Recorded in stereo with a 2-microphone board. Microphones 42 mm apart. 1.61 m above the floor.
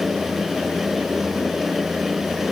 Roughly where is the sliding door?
I don't hear a sliding door.